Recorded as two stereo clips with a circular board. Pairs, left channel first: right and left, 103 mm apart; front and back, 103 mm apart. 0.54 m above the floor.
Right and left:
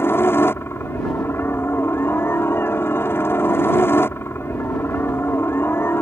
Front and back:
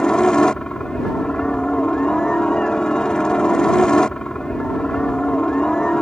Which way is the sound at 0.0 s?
70° right.